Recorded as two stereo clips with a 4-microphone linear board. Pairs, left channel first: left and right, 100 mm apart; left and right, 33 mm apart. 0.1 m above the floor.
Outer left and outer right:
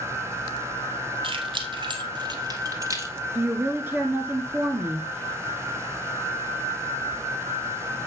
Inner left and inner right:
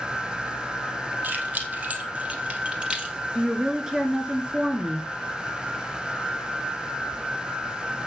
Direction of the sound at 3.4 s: 20° right (ahead or behind).